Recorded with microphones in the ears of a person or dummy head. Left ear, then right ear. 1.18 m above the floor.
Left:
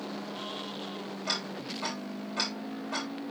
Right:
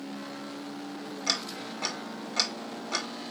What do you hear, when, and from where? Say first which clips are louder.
1.3 s ticking: right 3 dB; 50° right (ahead or behind), 2.5 m